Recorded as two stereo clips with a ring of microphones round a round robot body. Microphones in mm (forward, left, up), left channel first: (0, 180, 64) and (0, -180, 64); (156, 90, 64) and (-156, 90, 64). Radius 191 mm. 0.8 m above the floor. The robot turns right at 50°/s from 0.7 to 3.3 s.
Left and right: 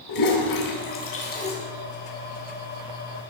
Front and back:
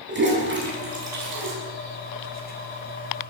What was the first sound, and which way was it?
A toilet flushing, 125° left.